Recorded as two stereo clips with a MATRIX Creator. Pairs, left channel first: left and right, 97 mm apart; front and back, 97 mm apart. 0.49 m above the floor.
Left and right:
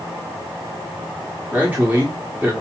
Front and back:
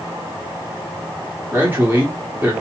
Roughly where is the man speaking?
Behind right.